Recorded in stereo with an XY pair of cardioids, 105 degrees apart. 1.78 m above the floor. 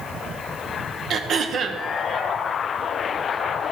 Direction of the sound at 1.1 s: 60° right.